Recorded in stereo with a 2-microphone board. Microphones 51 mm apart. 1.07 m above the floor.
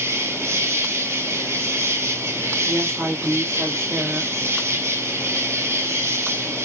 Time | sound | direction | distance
0.0 | an insect | 65° right (ahead or behind) | 1.2 m
2.6 | a woman speaking | 55° right (ahead or behind) | 3 m